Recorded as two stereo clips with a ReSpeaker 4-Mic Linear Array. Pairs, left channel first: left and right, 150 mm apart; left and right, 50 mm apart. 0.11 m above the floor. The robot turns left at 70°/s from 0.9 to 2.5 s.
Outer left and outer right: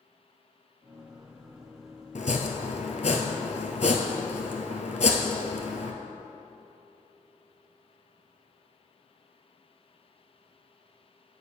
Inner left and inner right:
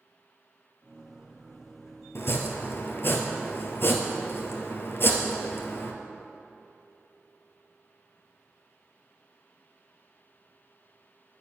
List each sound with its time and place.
2.1 s chopping: 55° left (ahead or behind), 0.9 m